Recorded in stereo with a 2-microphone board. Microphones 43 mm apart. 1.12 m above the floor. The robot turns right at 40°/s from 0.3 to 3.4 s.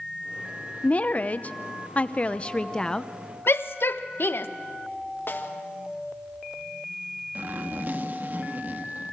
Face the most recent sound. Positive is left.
turn(degrees=-50)  # may be behind; listen again after turning